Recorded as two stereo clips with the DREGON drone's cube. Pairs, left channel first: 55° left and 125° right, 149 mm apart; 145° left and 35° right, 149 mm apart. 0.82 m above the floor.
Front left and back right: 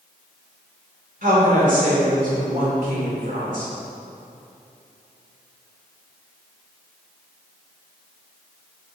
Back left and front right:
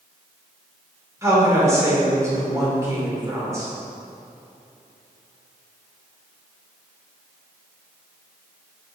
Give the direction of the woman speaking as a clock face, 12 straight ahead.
3 o'clock.